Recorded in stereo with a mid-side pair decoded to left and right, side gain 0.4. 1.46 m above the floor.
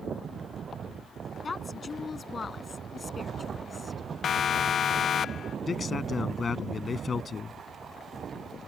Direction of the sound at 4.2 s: 55° left.